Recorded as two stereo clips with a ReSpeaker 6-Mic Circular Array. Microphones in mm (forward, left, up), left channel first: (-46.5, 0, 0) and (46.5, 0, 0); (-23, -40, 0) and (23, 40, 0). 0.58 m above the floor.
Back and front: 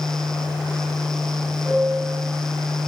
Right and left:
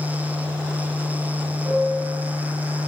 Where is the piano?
80° left, 7 m.